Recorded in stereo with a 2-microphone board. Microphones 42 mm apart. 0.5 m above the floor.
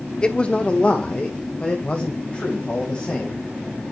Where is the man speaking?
20° left (ahead or behind), 0.9 m; by 3.5 s 30° left (ahead or behind), 3.5 m.